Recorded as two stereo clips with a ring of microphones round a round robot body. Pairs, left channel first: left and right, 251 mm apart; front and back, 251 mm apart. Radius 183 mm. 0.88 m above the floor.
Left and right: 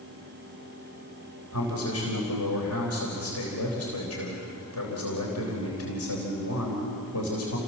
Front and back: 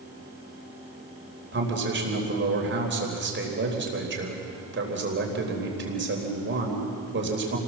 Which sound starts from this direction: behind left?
A man speaking, at 1.5 s.